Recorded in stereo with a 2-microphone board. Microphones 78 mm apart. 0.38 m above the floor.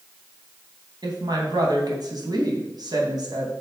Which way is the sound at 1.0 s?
60° right (ahead or behind).